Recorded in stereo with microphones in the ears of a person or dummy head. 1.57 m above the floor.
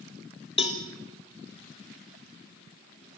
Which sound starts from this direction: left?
A cowbell, at 0.6 s.